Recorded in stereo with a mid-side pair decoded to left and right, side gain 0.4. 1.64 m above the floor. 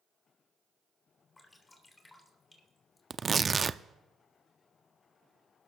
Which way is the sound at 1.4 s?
35° left.